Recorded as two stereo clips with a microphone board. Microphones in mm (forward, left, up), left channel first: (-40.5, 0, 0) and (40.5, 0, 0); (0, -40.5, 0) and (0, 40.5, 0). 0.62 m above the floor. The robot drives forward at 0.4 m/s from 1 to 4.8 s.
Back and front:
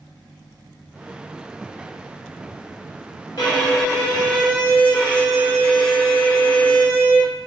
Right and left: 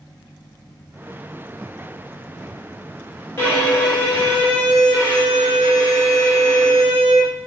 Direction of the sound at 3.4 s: 150° right.